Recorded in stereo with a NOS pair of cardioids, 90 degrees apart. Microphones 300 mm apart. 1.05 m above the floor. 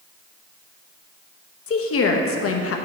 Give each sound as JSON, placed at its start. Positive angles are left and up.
{"t": 1.7, "sound": "a woman speaking", "azimuth_deg": 50, "distance_m": 1.1}